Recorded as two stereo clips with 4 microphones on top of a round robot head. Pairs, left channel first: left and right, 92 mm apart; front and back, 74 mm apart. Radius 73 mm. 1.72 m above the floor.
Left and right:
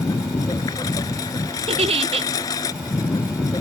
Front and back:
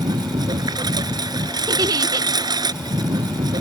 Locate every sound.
0.0 s a lawn mower: 150° left
1.7 s a giggle: 125° right